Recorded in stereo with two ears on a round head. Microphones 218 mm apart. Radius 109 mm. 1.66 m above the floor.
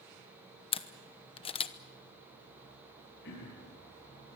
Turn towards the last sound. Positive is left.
turn(degrees=50)  # may be behind; listen again after turning